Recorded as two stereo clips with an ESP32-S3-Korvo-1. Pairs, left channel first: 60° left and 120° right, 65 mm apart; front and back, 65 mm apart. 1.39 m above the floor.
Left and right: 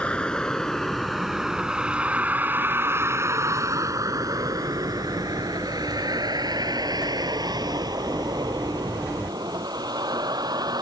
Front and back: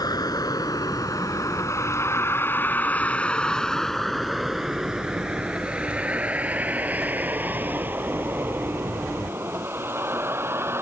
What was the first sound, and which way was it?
A vehicle, 10° right.